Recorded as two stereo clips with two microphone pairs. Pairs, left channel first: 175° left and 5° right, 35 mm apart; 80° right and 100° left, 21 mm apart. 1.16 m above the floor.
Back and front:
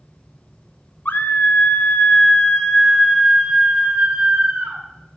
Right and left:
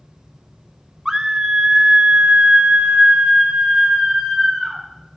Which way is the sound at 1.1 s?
160° left.